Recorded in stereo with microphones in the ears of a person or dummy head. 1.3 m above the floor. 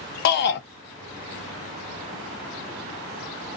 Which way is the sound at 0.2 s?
65° left (ahead or behind).